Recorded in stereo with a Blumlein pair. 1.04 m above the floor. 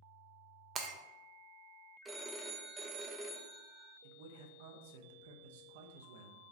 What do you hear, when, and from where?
0.8 s breaking glass: 30° right, 0.5 m
2.0 s a phone ringing: 15° right, 0.5 m
4.0 s a man speaking: 55° right, 0.6 m